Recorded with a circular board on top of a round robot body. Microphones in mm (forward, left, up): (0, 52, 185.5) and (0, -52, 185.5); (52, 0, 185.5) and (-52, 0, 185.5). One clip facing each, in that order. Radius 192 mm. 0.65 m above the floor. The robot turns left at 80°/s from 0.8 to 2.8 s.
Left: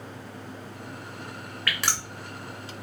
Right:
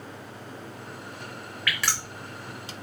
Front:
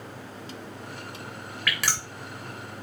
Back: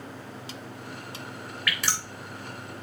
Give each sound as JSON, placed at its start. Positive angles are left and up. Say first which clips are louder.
{"t": 1.7, "sound": "dripping", "louder": "even, front 1 dB", "azimuth_deg": 35, "distance_m": 0.6}